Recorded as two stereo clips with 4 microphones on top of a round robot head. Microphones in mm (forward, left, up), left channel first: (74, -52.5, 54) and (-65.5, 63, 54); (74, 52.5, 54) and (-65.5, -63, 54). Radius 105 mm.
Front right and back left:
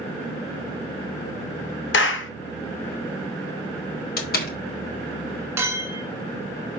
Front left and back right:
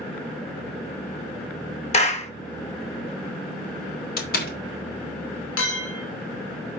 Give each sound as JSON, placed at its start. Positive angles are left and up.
{"t": 1.9, "sound": "a clap", "azimuth_deg": -15, "distance_m": 0.9}
{"t": 4.2, "sound": "a door slam", "azimuth_deg": 0, "distance_m": 1.5}
{"t": 5.6, "sound": "a clink", "azimuth_deg": 65, "distance_m": 1.9}